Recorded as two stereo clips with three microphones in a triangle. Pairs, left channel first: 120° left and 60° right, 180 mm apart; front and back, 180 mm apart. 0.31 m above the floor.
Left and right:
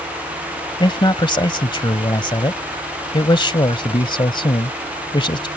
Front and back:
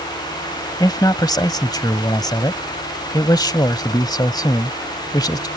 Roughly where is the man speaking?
Ahead left.